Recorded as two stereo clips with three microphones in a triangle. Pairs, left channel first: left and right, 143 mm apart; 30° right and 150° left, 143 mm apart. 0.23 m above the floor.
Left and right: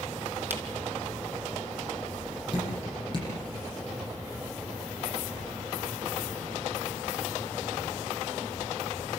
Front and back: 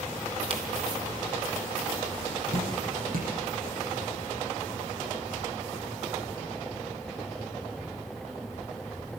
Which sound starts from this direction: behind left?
Dripping, at 2.5 s.